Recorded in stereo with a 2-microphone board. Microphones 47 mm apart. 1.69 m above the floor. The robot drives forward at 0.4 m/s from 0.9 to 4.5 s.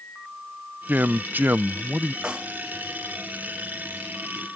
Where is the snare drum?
20° right (ahead or behind).